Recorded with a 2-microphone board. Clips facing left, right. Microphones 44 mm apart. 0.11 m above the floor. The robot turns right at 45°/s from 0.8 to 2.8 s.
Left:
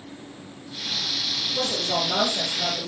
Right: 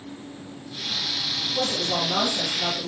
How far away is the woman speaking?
About 1.9 m.